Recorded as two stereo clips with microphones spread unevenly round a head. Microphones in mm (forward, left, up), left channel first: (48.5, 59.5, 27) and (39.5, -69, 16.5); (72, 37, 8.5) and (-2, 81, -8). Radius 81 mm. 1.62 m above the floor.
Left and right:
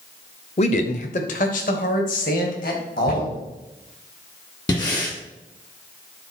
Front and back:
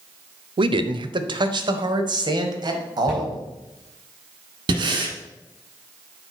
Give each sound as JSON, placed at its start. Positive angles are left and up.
{"t": 0.6, "sound": "a man speaking", "azimuth_deg": 135, "distance_m": 0.7}
{"t": 3.1, "sound": "a cupboard door", "azimuth_deg": 105, "distance_m": 4.5}
{"t": 4.7, "sound": "breathing", "azimuth_deg": 140, "distance_m": 1.5}